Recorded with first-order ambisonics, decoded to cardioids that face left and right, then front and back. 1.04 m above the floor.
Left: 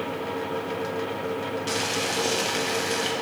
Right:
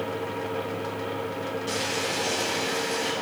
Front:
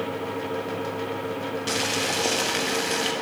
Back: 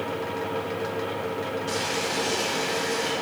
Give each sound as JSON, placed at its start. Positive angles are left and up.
{"t": 1.7, "sound": "boiling", "azimuth_deg": 25, "distance_m": 1.2}